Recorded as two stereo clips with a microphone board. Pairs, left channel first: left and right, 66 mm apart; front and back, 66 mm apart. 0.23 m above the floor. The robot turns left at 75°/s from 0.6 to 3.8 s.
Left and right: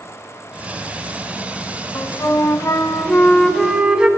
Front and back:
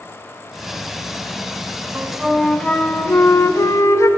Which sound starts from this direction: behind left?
A flute, at 1.9 s.